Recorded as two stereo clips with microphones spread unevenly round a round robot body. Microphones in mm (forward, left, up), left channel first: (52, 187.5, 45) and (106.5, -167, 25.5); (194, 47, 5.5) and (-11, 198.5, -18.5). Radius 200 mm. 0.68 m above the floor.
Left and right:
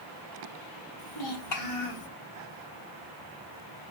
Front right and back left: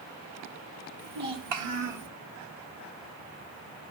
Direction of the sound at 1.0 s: 140° left.